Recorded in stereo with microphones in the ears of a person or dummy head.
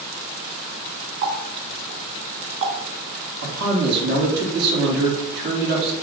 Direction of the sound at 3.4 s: 55° right (ahead or behind).